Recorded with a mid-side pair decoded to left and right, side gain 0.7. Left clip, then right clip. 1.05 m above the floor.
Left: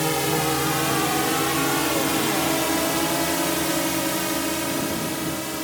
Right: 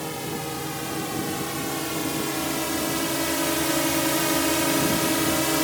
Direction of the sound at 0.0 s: 35° left.